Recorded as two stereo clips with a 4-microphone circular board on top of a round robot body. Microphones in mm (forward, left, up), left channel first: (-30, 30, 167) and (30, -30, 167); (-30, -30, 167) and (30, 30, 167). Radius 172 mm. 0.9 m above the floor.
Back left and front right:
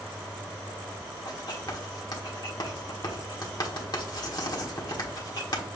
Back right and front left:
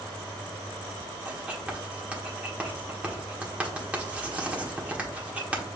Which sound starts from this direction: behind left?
Writing, at 1.2 s.